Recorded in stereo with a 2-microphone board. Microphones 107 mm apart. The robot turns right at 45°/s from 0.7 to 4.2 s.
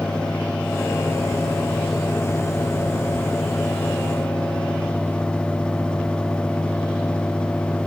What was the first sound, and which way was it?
Only background noise.